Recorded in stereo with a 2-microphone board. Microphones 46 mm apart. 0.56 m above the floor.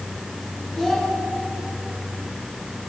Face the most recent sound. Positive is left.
turn(degrees=10)  # may be behind; listen again after turning